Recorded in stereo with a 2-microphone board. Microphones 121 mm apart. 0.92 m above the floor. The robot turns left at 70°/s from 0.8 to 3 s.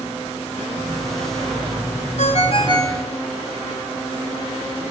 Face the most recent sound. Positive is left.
turn(degrees=25)